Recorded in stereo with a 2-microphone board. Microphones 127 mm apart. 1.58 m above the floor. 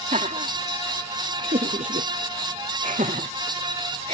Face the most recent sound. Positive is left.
turn(degrees=-55)  # may be behind; listen again after turning